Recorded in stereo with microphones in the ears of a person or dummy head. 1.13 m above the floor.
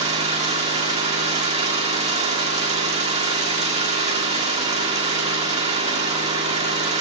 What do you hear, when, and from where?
0.0 s an engine running: 40° right (ahead or behind), 1.8 m